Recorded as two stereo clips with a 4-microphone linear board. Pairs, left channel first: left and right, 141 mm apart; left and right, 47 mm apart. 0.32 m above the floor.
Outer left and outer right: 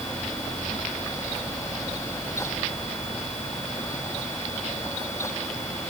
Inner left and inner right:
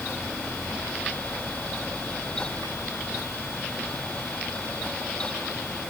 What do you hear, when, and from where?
Only background noise.